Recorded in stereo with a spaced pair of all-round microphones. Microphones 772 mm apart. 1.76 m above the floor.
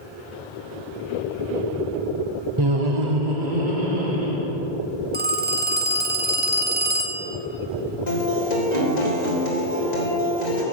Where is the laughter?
30° right (ahead or behind), 0.6 m; by 4.5 s 75° right (ahead or behind), 3 m.